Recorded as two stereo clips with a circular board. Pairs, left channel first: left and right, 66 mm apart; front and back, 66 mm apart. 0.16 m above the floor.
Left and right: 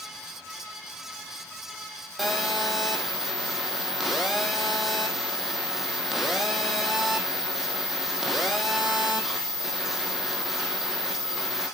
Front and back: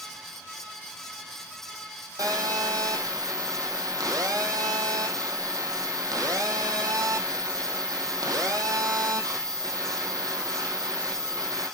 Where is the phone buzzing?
Straight behind, 3 m.